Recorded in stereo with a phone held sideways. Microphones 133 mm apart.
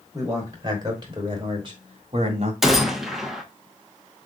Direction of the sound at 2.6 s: 5° right (ahead or behind).